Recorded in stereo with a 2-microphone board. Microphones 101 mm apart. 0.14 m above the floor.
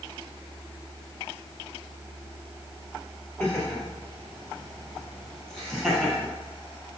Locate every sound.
3.4 s laughter: 10° left (ahead or behind), 3.5 m; by 6.3 s centre (ahead or behind), 5 m